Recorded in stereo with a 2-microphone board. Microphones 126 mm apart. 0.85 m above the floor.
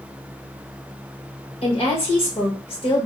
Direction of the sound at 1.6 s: 45° left (ahead or behind).